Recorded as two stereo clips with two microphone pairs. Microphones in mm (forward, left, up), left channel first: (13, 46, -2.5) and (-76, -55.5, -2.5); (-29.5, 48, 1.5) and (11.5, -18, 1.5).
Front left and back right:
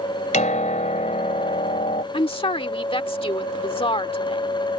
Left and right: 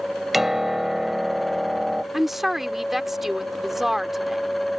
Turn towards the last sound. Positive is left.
turn(degrees=30)